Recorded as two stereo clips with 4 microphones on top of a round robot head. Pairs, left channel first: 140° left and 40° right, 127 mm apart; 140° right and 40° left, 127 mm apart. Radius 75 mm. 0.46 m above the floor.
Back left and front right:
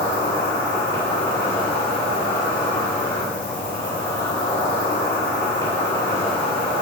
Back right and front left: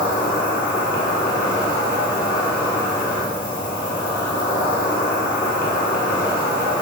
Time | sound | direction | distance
0.0 | an insect | 150° right | 4.5 m